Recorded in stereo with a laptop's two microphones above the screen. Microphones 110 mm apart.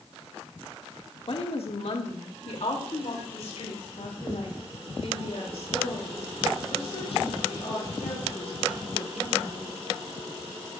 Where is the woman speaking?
55° left (ahead or behind), 1.3 m; by 9.7 s 65° left (ahead or behind), 8 m.